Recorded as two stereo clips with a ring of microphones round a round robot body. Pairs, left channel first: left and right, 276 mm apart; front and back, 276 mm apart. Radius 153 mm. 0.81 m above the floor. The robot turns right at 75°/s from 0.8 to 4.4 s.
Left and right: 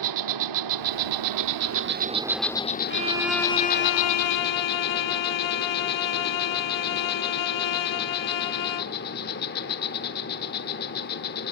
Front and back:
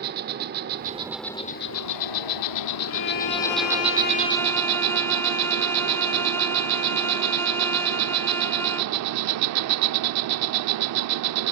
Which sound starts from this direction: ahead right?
A violin, at 2.9 s.